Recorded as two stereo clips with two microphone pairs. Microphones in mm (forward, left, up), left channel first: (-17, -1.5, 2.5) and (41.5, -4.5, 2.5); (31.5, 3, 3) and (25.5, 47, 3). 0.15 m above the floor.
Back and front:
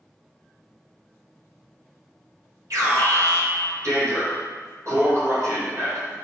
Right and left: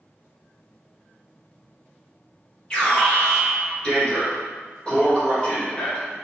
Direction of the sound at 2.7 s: 10° right.